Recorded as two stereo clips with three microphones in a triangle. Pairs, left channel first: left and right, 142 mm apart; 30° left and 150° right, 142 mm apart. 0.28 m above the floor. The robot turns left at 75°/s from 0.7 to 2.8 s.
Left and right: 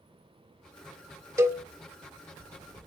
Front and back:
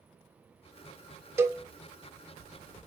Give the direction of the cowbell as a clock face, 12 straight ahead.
4 o'clock.